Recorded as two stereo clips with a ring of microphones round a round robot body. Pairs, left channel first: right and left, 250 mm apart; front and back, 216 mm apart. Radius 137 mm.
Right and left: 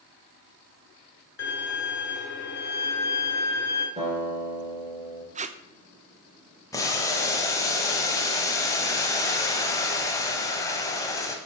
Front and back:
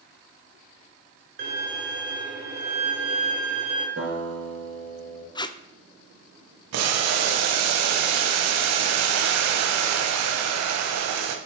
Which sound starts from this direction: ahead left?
Tape being pulled, at 5.3 s.